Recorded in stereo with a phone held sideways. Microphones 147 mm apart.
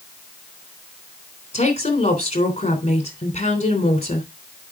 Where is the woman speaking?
45° left (ahead or behind), 3 m.